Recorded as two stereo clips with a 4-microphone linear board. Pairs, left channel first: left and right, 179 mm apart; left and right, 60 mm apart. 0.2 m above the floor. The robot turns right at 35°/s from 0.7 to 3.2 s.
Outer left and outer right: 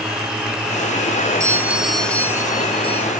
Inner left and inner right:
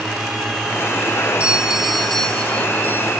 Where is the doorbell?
20° right; by 3.1 s 40° left.